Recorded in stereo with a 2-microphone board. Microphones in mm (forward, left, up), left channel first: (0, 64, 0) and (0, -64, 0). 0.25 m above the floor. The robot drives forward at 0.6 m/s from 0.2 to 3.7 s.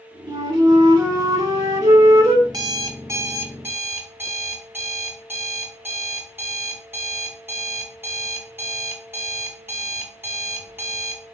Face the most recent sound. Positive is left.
turn(degrees=-15)  # may be behind; listen again after turning